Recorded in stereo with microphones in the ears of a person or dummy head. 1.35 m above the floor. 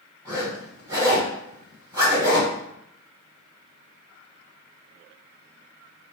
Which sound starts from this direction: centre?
A zipper, at 0.2 s.